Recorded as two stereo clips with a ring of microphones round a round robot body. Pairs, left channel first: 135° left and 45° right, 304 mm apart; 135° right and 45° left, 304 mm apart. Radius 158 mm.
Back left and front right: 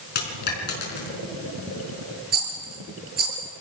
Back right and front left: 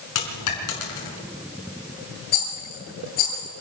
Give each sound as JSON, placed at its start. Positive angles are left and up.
{"t": 0.1, "sound": "a dropped coin", "azimuth_deg": -165, "distance_m": 5.0}
{"t": 2.3, "sound": "a rattle", "azimuth_deg": -105, "distance_m": 6.5}